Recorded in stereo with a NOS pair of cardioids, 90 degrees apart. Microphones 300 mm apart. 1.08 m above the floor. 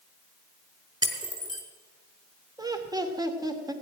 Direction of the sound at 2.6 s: 10° right.